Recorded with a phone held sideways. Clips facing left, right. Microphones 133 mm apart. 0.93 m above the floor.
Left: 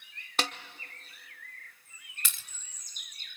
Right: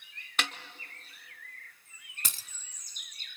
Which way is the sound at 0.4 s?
35° left (ahead or behind).